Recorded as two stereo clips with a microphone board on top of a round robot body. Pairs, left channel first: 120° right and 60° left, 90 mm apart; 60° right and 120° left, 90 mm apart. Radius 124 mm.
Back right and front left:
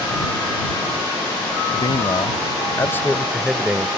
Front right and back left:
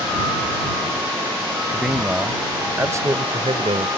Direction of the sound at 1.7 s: 155° right.